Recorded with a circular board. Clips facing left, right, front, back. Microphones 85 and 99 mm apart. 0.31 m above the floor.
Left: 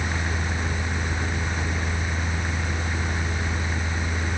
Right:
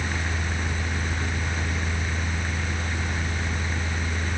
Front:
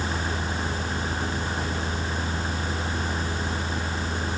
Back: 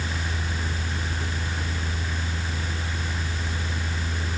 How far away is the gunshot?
No gunshot in this recording.